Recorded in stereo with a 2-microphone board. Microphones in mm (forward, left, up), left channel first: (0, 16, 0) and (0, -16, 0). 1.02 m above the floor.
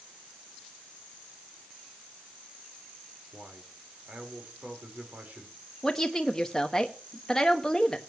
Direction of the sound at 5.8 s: 20° left (ahead or behind).